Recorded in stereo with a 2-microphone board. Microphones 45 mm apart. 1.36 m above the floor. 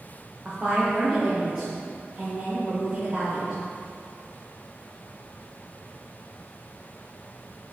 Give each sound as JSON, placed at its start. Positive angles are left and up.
{"t": 0.5, "sound": "a woman speaking", "side_deg": -25, "distance_m": 1.2}